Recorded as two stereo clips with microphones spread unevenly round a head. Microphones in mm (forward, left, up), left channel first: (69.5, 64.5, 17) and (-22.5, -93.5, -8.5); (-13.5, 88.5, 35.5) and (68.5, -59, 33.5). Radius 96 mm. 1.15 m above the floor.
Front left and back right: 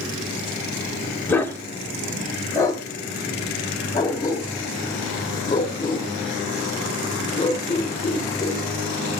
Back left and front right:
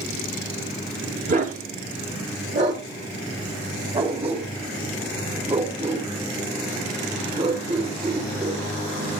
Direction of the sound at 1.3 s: 20° right.